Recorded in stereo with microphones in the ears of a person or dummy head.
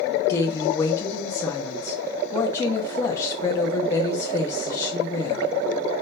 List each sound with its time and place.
0.3 s a woman speaking: 15° left (ahead or behind), 1.0 m